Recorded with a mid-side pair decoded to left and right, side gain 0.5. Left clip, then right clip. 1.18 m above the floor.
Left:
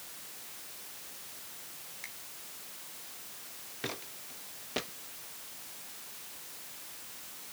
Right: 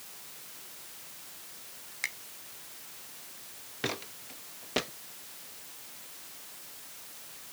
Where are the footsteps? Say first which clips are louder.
Right 5 dB; 35° right.